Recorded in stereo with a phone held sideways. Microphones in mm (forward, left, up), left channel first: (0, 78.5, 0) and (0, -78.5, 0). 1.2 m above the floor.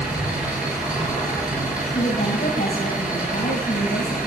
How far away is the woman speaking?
About 6 m.